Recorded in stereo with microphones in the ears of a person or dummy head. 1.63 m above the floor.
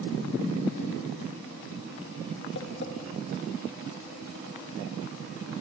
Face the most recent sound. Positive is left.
turn(degrees=70)  # may be behind; listen again after turning